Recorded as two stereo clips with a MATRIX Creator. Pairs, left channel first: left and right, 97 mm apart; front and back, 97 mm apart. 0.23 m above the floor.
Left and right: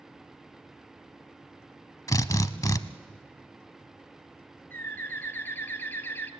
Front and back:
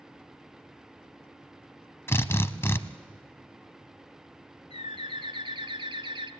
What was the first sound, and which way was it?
A drill, 55° left.